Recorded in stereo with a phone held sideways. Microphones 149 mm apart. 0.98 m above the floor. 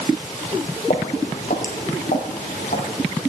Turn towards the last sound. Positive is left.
turn(degrees=70)  # may be behind; listen again after turning